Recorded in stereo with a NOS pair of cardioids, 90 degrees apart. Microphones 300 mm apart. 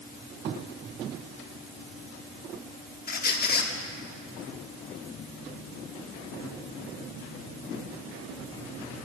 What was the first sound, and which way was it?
A squeak, 35° left.